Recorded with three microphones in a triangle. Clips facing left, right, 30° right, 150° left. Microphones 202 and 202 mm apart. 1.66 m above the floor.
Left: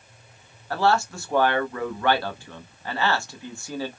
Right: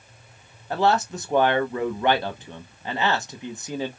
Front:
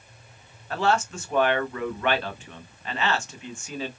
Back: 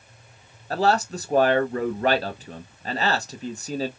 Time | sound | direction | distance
0.7 | a man speaking | 160° right | 0.7 m